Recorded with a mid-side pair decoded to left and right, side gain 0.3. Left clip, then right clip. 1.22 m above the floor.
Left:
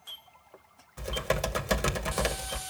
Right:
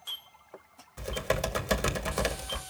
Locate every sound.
1.0 s typing on a keyboard: straight ahead, 2 m